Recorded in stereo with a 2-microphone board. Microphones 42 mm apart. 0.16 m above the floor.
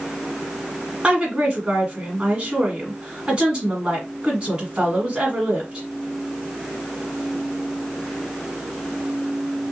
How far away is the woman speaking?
About 1.4 m.